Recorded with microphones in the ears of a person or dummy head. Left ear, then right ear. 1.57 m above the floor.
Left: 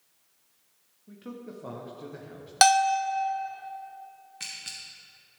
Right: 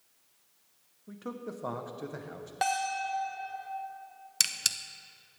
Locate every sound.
1.1 s a man speaking: 35° right (ahead or behind), 1.0 m
2.6 s a bell: 55° left (ahead or behind), 1.0 m
4.4 s a camera shutter: 80° right, 0.7 m